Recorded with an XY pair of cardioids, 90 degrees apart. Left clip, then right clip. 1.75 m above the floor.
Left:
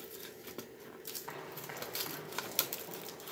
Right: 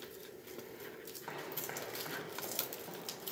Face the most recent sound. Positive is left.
turn(degrees=-25)